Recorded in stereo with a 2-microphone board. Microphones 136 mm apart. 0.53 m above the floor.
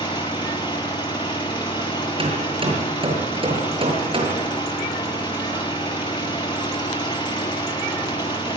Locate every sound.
0.0 s an engine running: 35° left (ahead or behind), 8.5 m
2.2 s hammering: 40° right (ahead or behind), 6.5 m